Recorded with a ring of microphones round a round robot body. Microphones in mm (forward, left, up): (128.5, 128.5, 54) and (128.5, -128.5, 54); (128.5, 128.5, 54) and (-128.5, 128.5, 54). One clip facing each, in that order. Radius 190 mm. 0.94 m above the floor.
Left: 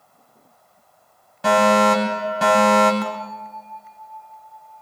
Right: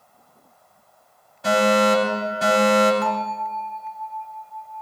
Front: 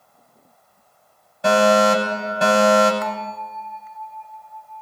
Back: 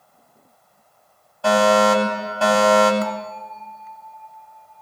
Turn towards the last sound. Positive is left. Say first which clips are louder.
# right 3 dB, back 2 dB
turn(degrees=125)